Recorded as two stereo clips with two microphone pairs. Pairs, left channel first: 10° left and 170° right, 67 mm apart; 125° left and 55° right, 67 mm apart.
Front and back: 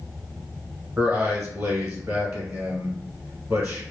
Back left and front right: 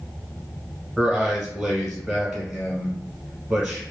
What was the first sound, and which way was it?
A man speaking, 110° right.